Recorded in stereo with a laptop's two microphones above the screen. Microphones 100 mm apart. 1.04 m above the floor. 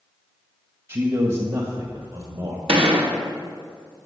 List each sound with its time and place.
0.9 s a man speaking: 50° right (ahead or behind), 1.4 m; by 2.6 s 70° right (ahead or behind), 2 m
2.7 s a gunshot: 80° right, 1.4 m